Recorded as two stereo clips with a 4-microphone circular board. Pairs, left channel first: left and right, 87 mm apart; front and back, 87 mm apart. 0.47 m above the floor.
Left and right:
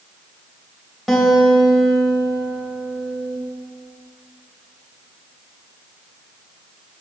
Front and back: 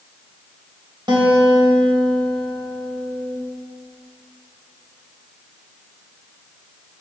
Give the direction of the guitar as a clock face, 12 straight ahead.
6 o'clock.